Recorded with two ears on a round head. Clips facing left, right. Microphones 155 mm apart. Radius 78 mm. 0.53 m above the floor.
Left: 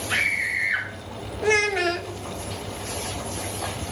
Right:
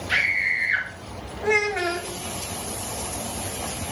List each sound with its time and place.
0.1 s a scream: 25° right (ahead or behind), 2.5 m
1.4 s a child speaking: 30° left (ahead or behind), 0.6 m